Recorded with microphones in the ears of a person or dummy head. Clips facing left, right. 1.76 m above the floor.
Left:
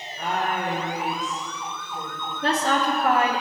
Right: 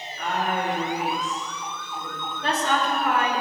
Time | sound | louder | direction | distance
0.2 | a woman speaking | even | 25° left (ahead or behind) | 3 m
2.4 | a woman speaking | left 2 dB | 50° left (ahead or behind) | 2.5 m